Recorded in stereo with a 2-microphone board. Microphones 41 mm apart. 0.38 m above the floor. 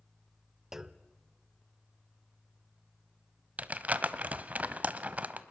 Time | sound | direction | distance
0.7 | a clunk | 10° right (ahead or behind) | 0.5 m
3.6 | crumpling | 40° right (ahead or behind) | 0.8 m